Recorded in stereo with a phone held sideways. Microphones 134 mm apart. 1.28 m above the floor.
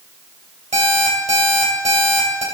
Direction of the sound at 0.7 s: 60° right (ahead or behind).